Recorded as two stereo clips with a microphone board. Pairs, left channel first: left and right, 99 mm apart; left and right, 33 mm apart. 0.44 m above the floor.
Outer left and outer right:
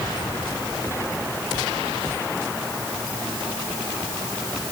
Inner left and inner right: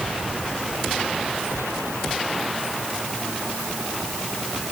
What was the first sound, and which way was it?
Only background noise.